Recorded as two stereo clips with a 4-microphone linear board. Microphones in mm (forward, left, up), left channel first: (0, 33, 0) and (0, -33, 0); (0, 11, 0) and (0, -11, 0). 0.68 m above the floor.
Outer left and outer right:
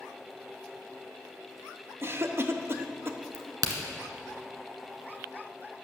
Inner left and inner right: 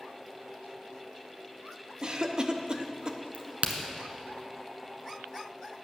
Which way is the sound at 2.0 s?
40° right (ahead or behind).